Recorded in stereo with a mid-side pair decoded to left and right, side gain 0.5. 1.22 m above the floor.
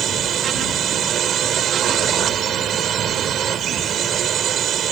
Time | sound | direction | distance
0.0 | a drone | 55° right | ?